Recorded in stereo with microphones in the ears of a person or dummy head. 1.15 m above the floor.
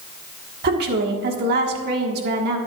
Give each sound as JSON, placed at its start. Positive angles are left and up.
{"t": 0.6, "sound": "a woman speaking", "side_deg": -55, "distance_m": 1.5}